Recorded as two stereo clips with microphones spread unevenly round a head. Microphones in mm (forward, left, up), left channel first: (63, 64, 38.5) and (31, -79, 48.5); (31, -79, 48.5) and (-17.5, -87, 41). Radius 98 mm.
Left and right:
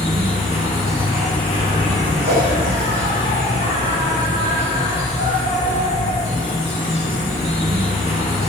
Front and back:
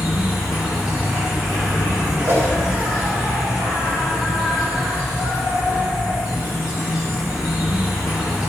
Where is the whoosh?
140° right, 2 m.